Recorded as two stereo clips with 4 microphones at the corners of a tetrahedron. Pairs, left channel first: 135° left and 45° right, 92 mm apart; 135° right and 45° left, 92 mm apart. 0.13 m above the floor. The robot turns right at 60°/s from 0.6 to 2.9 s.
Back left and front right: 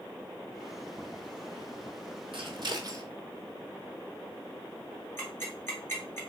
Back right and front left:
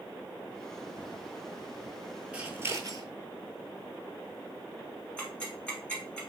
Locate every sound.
2.3 s scissors: 35° right, 0.6 m; by 3.0 s straight ahead, 0.6 m
5.2 s ticking: 160° left, 1.3 m